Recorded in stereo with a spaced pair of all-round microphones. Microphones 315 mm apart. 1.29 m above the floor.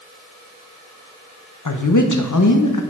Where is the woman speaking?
70° left (ahead or behind), 0.8 m.